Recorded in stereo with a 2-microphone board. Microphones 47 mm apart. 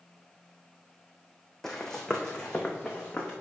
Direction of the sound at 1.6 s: 10° left (ahead or behind).